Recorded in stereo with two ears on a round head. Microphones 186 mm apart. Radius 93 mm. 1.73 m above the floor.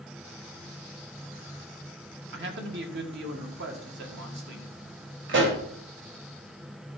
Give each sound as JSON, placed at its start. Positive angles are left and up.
{"t": 2.3, "sound": "a man speaking", "side_deg": -55, "distance_m": 2.0}
{"t": 5.3, "sound": "a pop", "side_deg": -60, "distance_m": 2.5}